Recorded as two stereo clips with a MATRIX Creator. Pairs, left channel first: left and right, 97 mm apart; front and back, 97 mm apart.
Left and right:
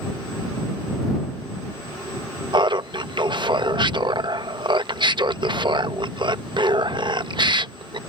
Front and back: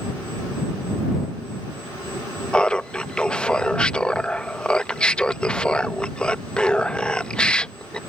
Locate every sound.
2.5 s laughter: 80° right